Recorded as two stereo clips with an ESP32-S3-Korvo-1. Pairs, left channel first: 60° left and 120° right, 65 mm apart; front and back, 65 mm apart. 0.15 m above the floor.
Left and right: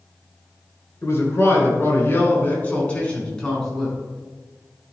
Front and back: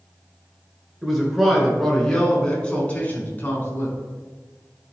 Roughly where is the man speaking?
Left.